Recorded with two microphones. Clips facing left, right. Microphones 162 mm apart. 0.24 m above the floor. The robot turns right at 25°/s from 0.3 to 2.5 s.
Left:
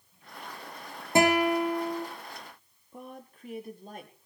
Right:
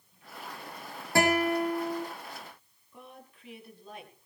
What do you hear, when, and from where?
1.1 s a guitar: 20° left (ahead or behind), 5 m; by 2.1 s centre (ahead or behind), 5 m
2.9 s a woman speaking: 45° left (ahead or behind), 5.5 m